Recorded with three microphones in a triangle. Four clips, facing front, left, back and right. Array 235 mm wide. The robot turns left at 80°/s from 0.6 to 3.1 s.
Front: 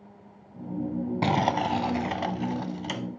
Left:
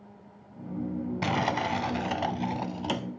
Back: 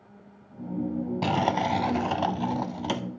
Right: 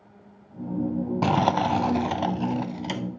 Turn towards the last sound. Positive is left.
turn(degrees=145)